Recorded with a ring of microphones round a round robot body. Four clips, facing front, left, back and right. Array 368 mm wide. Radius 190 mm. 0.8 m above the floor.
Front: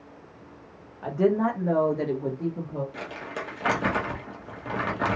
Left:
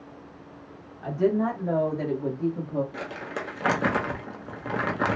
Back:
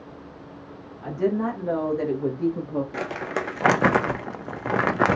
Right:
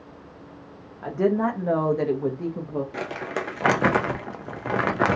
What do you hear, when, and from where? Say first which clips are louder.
1.0 s a woman speaking: right 1 dB, front 1 dB; 55° right, 1.5 m; by 2.8 s 160° right, 1.1 m
2.9 s crumpling: right 4 dB, back 7 dB; 155° right, 0.6 m